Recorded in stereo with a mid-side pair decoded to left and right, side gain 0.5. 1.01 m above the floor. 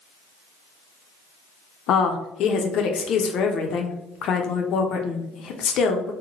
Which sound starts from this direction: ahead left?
A woman speaking, at 1.9 s.